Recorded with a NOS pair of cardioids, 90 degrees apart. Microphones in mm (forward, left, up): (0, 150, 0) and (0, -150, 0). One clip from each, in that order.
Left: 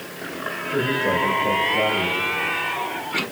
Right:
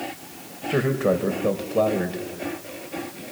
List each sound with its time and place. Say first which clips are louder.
0.7 s a man speaking: even; 45° right, 4.5 m